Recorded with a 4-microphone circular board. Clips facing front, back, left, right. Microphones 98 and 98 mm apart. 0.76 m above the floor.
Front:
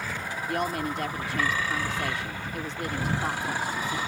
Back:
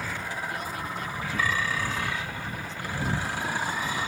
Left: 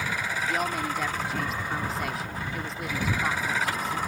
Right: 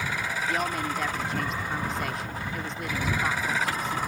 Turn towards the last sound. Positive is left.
turn(degrees=0)